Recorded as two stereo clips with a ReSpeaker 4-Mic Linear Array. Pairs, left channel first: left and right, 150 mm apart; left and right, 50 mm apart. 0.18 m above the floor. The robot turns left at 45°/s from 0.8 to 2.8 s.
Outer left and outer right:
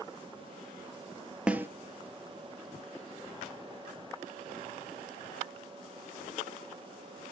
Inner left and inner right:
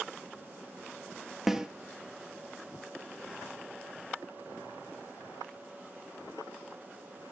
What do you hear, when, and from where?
1.5 s a snare drum: 5° right (ahead or behind), 0.6 m; by 1.7 s 15° right (ahead or behind), 0.6 m